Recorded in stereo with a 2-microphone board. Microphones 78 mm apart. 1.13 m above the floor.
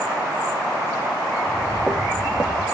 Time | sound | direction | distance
1.3 | footsteps | 10° right (ahead or behind) | 4.5 m